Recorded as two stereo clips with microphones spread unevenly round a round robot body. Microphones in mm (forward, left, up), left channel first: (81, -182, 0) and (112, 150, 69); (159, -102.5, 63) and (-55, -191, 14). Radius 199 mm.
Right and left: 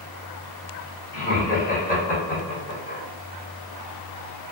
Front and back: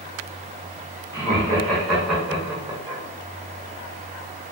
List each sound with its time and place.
1.1 s laughter: 60° right, 1.7 m; by 3.0 s 125° right, 1.5 m